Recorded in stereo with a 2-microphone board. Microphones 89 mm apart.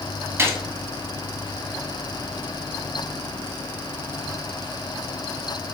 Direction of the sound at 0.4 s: 25° right (ahead or behind).